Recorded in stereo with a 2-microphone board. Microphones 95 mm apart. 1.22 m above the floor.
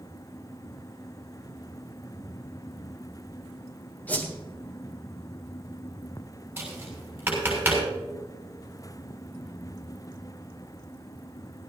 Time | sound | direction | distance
4.1 | a whoosh | 15° left (ahead or behind) | 3 m
6.6 | tapping | 20° right (ahead or behind) | 6.5 m